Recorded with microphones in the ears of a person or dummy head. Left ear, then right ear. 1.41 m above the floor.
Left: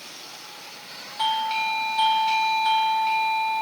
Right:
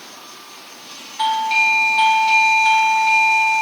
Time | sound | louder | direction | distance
1.2 | a doorbell | right 7 dB | 20° right (ahead or behind) | ?